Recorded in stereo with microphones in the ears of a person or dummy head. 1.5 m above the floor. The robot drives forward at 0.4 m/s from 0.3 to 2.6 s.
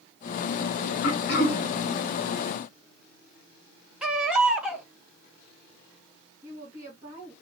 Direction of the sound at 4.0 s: Centre (ahead or behind).